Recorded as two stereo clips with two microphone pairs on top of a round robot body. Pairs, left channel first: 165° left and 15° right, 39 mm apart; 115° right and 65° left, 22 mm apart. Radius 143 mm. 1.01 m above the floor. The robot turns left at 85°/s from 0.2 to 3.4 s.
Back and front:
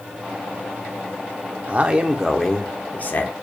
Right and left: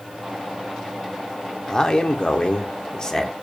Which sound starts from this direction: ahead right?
A man speaking, at 1.7 s.